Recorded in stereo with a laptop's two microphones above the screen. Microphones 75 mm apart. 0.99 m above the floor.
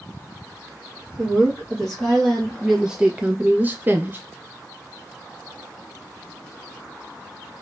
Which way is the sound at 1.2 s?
10° left (ahead or behind).